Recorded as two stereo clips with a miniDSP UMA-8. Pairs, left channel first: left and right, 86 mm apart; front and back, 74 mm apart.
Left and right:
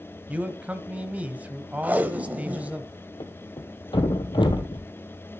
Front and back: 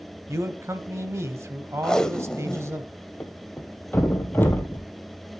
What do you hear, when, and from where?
0.3 s a man speaking: 155° right, 1.1 m
1.8 s tape being pulled: 65° right, 1.0 m
3.2 s a thud: 65° left, 1.6 m